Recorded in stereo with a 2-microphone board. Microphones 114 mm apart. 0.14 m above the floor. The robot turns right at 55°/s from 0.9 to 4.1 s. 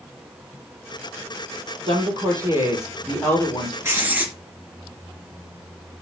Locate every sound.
1.9 s a woman speaking: 65° right, 4 m; by 3.7 s 40° left, 4 m
3.8 s writing: 25° right (ahead or behind), 2.5 m; by 4.3 s 15° right (ahead or behind), 2.5 m